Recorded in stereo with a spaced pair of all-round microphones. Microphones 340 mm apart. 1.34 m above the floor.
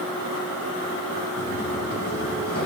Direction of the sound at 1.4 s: 55° left (ahead or behind).